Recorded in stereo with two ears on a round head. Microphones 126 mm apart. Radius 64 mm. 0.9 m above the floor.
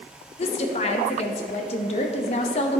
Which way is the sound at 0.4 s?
40° left (ahead or behind).